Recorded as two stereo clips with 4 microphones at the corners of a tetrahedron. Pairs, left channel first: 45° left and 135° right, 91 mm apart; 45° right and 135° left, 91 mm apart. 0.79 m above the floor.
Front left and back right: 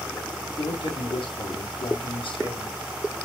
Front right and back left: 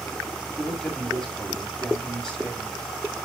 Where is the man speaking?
40° left, 6 m.